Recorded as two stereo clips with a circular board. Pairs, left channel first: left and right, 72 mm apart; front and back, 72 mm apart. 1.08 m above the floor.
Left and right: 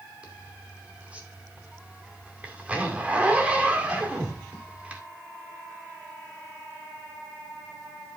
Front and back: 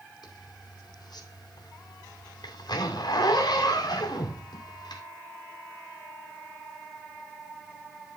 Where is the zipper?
15° right, 2.5 m.